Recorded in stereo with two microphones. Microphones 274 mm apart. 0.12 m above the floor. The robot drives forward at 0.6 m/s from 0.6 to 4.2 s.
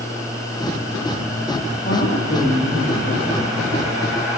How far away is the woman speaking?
About 7 m.